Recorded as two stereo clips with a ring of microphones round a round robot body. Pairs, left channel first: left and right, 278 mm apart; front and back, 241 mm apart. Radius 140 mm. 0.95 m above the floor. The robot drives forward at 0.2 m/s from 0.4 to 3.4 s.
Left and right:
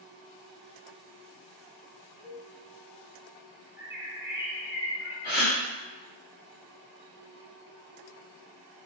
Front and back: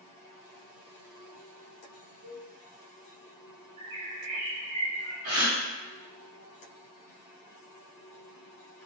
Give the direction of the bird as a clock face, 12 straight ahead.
5 o'clock.